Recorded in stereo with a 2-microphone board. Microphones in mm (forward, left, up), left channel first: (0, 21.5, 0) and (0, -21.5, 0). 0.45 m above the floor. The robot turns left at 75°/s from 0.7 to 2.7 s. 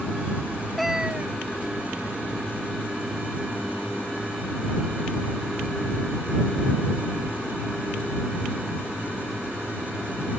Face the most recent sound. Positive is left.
turn(degrees=-140)